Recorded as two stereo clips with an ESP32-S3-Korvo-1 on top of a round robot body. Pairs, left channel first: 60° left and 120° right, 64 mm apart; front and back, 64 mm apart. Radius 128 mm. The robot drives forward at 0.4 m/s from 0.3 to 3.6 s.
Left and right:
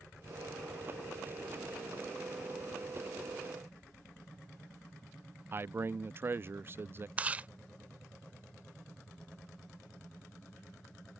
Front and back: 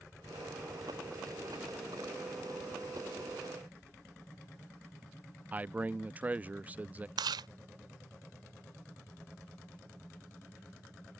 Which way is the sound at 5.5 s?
130° right.